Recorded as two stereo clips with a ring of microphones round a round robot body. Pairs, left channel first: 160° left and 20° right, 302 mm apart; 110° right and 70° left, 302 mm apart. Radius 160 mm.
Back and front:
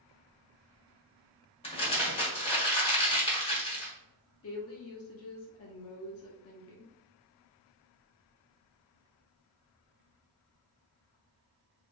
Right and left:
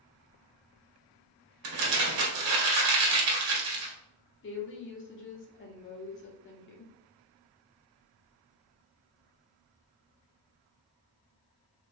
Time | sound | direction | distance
1.6 | crumpling | 85° left | 1.4 m
4.4 | a woman speaking | 160° right | 1.3 m